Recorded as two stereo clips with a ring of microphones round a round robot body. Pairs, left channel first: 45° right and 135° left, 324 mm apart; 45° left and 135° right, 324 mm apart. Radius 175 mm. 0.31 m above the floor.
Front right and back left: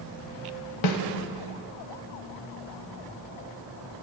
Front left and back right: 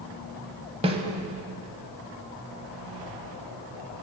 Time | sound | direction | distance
0.8 | a snare drum | 60° right | 1.0 m